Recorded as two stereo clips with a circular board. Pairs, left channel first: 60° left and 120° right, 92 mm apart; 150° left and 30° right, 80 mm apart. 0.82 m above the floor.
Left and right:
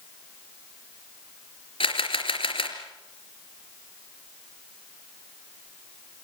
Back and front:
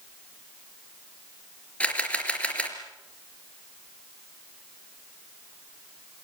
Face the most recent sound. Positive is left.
turn(degrees=75)